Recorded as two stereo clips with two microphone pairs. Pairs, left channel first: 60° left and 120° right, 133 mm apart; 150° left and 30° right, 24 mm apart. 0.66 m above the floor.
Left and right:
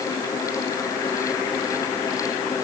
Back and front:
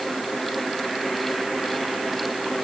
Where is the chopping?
No chopping in this recording.